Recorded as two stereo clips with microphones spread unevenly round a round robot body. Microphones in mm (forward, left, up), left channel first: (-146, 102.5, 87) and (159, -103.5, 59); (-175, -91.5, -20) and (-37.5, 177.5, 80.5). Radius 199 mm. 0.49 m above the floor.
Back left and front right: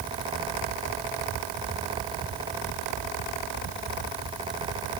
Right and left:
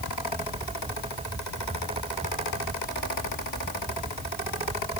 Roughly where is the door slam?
I don't hear a door slam.